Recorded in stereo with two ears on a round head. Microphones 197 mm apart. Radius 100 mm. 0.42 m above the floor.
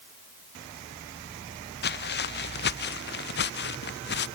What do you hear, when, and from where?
1.8 s footsteps: 50° left (ahead or behind)